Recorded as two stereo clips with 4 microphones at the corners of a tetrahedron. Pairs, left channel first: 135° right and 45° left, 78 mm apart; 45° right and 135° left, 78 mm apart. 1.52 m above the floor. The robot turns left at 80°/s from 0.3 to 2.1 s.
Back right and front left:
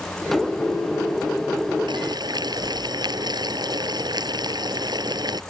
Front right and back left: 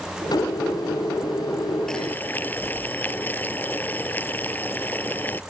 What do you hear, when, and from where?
1.9 s boiling: 40° left; by 5.4 s 20° left